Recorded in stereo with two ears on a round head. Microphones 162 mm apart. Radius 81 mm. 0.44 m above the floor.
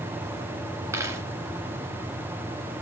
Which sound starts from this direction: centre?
A dropped coin, at 0.9 s.